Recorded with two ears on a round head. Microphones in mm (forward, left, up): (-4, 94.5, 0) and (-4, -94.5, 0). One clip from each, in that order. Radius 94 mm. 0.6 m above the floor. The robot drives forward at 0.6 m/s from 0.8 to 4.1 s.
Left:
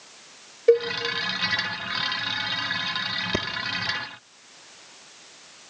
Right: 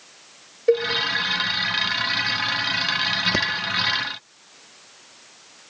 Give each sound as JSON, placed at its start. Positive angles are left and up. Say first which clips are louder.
{"t": 0.7, "sound": "a cowbell", "louder": "left 1 dB", "side_deg": 5, "distance_m": 2.0}
{"t": 3.3, "sound": "breathing", "louder": "right 6 dB", "side_deg": -15, "distance_m": 0.6}